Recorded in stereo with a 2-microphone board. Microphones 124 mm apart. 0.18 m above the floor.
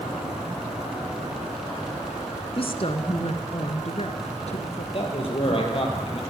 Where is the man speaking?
45° left (ahead or behind), 5.5 m.